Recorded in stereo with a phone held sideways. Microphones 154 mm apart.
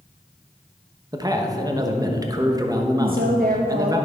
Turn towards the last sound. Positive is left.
turn(degrees=-70)  # may be behind; listen again after turning